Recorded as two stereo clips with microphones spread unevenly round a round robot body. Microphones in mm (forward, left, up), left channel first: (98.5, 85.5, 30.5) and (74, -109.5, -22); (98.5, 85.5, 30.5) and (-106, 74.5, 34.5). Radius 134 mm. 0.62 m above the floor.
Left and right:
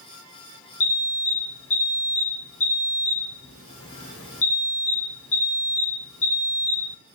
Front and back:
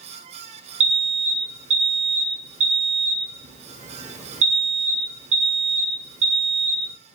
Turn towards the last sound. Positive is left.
turn(degrees=125)